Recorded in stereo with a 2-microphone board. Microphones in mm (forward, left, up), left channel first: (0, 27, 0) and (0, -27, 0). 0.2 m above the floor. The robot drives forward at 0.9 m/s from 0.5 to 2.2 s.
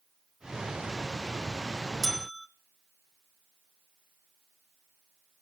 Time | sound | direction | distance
2.0 | a bell | 10° right (ahead or behind) | 0.5 m